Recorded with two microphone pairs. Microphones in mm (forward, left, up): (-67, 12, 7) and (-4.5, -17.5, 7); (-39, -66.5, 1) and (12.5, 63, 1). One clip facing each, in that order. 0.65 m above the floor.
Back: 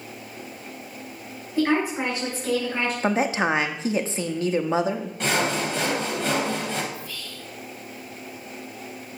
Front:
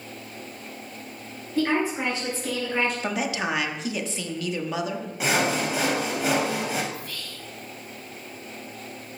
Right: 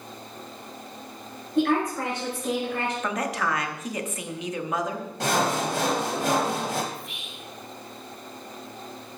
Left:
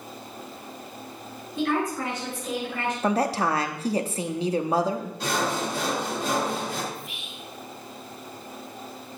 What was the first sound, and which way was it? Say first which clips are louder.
A woman speaking: back 2 dB, right 3 dB; 140° right.